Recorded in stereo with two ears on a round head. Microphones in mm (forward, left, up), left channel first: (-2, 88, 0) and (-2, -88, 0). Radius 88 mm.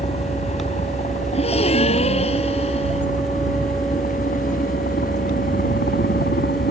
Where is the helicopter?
35° left (ahead or behind); by 6.7 s 50° left (ahead or behind).